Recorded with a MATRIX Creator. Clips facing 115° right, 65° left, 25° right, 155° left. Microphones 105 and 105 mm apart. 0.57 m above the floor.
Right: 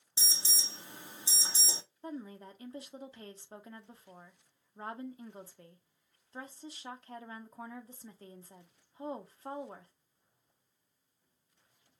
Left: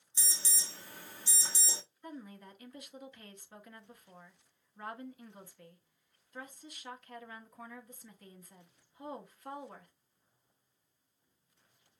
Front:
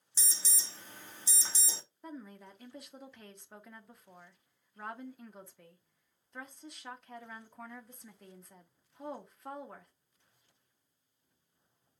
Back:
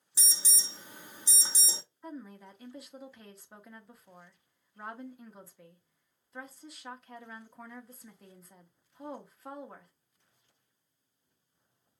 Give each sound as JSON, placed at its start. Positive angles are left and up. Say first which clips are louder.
{"t": 0.2, "sound": "an alarm", "louder": "right 1 dB, back 2 dB", "azimuth_deg": -145, "distance_m": 1.1}
{"t": 2.0, "sound": "a woman speaking", "louder": "right 5 dB, back 2 dB", "azimuth_deg": -115, "distance_m": 1.0}